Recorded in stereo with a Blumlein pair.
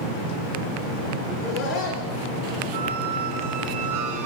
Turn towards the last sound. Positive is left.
turn(degrees=-40)